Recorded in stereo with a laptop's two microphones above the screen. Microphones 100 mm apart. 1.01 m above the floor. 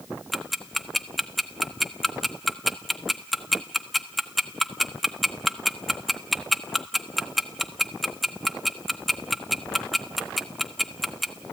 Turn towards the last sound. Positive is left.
turn(degrees=0)  # may be behind; listen again after turning